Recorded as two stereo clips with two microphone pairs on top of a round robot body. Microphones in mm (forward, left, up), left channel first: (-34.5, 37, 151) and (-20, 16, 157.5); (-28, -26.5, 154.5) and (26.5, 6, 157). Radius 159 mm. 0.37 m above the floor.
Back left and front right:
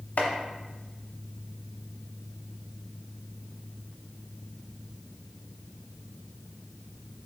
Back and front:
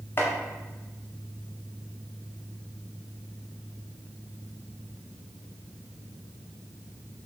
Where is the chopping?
155° left, 0.5 m.